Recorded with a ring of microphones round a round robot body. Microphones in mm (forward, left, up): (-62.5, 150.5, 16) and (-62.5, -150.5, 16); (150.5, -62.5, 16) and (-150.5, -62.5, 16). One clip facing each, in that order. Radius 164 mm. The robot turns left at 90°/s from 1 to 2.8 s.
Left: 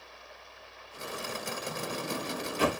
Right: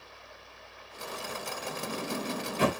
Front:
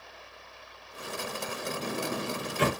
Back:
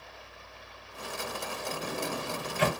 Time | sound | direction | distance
1.7 | a sliding door | 40° left | 4 m